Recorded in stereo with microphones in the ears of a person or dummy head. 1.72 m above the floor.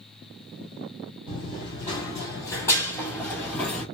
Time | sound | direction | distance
1.3 | running footsteps | 30° left (ahead or behind) | 2.5 m